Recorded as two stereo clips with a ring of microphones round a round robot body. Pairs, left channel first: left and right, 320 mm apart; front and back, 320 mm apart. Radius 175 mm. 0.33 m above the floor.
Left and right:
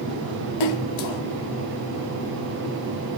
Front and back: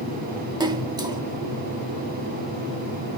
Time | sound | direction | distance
0.6 | a splash | 100° left | 1.0 m